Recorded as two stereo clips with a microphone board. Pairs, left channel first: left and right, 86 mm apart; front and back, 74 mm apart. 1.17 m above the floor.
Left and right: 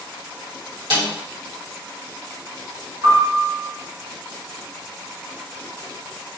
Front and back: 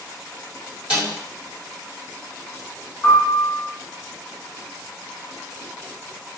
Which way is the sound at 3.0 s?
75° right.